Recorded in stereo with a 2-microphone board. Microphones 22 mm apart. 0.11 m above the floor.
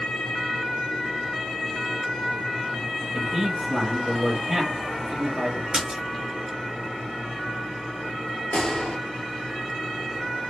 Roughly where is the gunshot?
Left.